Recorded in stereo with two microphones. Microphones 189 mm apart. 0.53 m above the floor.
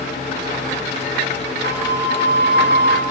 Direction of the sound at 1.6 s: 65° left (ahead or behind).